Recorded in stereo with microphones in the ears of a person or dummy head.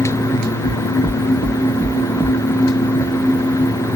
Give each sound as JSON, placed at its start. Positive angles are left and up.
{"t": 0.6, "sound": "knocking", "side_deg": 10, "distance_m": 1.1}